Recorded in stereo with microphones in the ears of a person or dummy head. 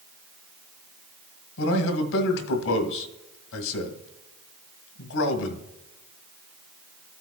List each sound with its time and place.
1.6 s a man speaking: 75° left (ahead or behind), 1.4 m